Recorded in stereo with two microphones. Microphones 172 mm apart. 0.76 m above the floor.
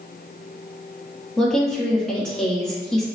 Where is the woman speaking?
5° left (ahead or behind), 1.1 m.